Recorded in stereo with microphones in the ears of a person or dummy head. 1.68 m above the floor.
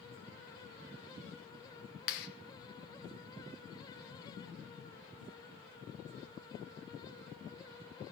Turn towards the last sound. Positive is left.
turn(degrees=60)  # may be behind; listen again after turning